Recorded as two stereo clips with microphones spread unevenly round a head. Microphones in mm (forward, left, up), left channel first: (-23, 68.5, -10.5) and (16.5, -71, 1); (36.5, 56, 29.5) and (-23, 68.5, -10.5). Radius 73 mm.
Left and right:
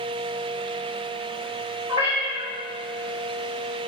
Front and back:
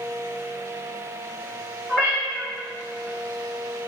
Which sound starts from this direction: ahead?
A cat meowing, at 1.9 s.